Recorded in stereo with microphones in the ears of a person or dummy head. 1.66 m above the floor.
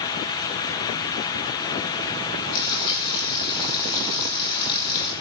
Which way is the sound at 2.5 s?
25° left (ahead or behind).